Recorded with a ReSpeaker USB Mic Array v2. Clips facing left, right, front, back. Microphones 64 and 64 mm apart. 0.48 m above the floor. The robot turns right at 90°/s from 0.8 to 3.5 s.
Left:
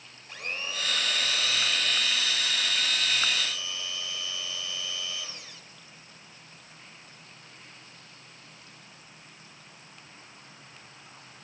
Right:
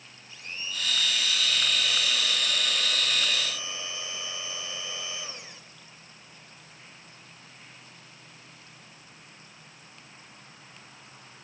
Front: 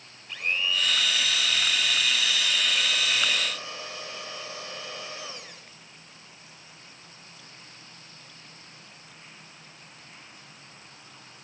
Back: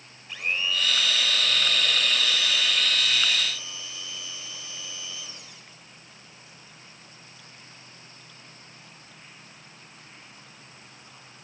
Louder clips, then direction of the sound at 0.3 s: Left 3 dB, even; 90° left.